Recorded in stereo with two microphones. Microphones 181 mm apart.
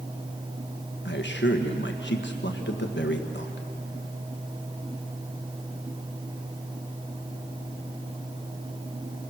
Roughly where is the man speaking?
Left.